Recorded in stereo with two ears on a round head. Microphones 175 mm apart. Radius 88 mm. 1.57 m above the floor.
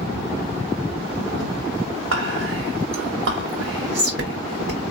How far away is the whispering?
About 0.9 m.